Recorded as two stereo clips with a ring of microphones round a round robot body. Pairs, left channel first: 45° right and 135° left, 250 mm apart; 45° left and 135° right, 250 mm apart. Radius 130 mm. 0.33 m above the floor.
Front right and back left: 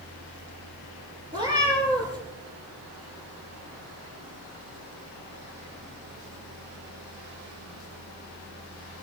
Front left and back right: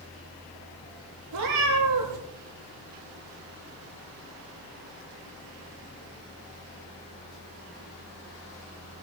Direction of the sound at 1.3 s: 150° right.